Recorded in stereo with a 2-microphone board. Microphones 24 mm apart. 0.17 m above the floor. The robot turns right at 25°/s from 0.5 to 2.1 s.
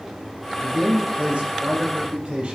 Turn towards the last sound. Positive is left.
turn(degrees=-50)